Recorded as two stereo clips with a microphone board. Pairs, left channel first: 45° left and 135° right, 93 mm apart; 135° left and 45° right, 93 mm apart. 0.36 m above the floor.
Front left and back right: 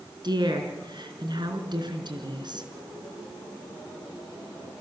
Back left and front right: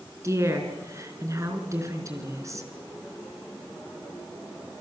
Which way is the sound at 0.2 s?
100° right.